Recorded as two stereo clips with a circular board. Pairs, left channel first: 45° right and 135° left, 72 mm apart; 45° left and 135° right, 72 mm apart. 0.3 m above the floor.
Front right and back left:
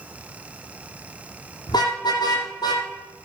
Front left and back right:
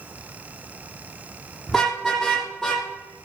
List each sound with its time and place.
1.7 s a car horn: 40° right, 5.5 m